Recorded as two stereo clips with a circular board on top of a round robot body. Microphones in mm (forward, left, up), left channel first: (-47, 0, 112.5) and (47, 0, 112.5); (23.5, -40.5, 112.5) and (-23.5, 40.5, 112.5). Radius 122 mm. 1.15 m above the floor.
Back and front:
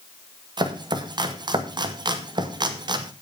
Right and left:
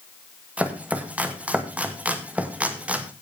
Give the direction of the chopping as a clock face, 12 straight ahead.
11 o'clock.